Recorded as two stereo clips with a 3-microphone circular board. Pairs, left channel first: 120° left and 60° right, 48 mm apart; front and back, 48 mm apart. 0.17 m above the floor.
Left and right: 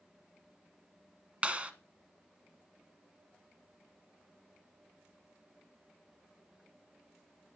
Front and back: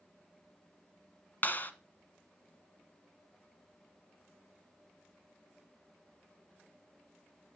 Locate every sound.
1.4 s a clap: 10° right, 1.4 m